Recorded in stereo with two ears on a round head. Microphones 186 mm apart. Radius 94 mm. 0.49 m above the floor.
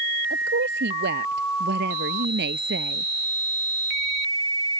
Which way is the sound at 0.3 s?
50° right (ahead or behind).